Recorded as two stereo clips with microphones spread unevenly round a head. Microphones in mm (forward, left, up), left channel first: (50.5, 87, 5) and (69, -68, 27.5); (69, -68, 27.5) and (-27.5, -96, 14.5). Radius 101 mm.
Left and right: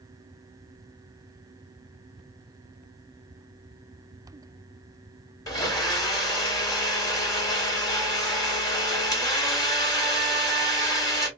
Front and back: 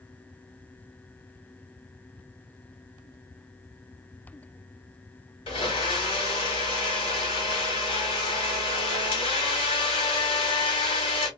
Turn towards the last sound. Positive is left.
turn(degrees=25)